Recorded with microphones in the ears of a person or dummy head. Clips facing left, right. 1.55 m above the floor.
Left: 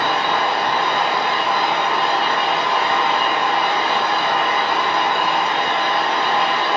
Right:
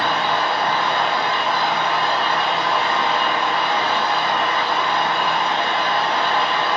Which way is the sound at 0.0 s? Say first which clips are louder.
Left 1 dB; 10° left (ahead or behind).